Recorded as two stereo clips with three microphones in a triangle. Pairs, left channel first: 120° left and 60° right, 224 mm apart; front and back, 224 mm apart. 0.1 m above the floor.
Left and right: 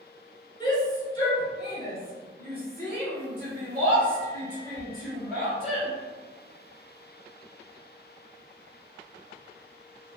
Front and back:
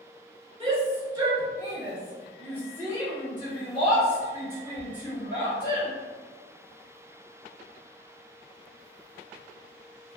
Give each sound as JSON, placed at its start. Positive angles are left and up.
{"t": 0.6, "sound": "a shout", "azimuth_deg": 165, "distance_m": 1.7}